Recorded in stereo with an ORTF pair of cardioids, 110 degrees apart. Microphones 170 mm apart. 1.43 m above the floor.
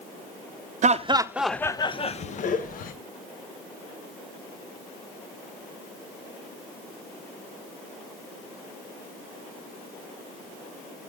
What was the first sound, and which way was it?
Laughter, 45° right.